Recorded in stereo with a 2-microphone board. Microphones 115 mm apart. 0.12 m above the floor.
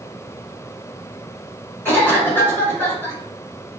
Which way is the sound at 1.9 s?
20° left (ahead or behind).